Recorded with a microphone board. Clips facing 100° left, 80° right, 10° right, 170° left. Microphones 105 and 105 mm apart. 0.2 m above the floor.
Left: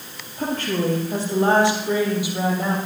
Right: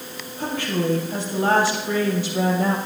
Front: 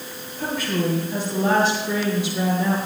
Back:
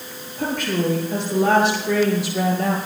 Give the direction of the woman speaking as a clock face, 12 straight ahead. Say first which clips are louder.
Left 1 dB, back 2 dB; 7 o'clock.